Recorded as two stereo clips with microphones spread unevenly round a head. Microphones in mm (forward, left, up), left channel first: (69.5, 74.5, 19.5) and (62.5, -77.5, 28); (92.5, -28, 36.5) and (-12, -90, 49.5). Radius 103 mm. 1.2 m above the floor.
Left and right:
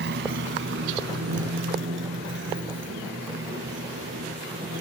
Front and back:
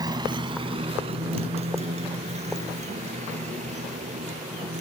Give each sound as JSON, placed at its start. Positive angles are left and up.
{"t": 0.0, "sound": "a motorcycle", "azimuth_deg": -95}